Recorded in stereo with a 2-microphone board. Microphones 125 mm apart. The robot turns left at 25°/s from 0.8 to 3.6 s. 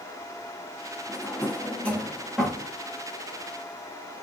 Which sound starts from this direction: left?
A drawer, at 1.1 s.